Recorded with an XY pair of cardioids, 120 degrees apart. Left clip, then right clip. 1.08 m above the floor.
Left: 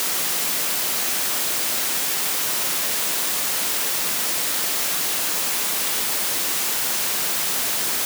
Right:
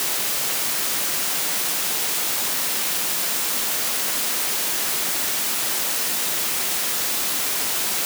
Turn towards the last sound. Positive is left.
No sound to turn to.